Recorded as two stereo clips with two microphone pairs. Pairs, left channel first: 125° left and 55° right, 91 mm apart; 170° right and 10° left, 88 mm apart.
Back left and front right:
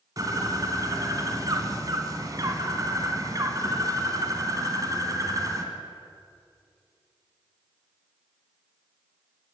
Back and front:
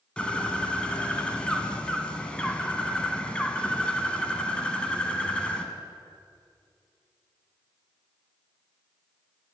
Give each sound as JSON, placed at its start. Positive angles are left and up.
{"t": 0.2, "sound": "a bird", "azimuth_deg": -95, "distance_m": 1.6}